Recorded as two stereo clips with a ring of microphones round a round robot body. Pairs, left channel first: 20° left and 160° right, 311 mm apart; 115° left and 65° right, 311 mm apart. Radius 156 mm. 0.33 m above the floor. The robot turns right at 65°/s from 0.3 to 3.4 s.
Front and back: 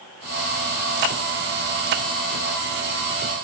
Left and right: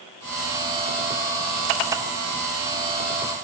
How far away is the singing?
I don't hear singing.